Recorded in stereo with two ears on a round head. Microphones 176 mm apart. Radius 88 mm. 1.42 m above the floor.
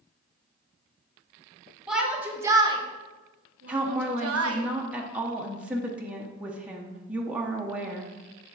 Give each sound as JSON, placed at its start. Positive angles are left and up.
{"t": 1.9, "sound": "a shout", "side_deg": -5, "distance_m": 1.7}
{"t": 3.7, "sound": "a woman speaking", "side_deg": -5, "distance_m": 0.9}